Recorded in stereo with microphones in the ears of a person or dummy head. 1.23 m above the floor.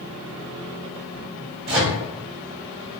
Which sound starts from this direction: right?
A microwave, at 1.7 s.